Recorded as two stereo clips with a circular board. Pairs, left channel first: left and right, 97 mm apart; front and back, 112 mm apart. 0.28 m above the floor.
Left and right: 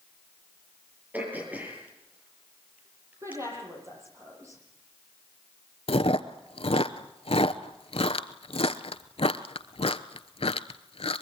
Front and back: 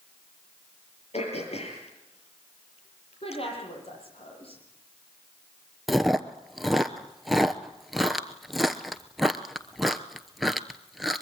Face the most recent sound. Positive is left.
turn(degrees=90)